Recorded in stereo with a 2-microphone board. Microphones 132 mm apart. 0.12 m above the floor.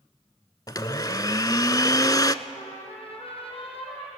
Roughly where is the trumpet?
Left.